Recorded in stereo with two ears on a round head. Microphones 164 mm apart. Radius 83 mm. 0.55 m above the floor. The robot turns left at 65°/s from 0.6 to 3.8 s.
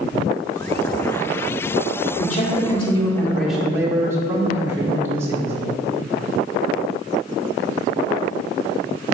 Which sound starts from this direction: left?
A man speaking, at 2.2 s.